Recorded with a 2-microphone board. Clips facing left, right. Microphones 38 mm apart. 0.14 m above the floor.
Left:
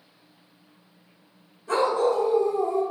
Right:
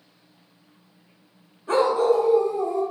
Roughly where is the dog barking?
Right.